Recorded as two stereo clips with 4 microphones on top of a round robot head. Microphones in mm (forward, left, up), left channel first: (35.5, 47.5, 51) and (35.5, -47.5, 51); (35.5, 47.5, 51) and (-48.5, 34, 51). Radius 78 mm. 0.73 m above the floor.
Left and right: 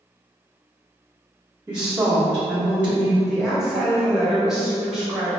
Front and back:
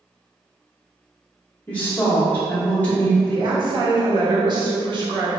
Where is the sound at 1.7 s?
40° right, 1.2 m.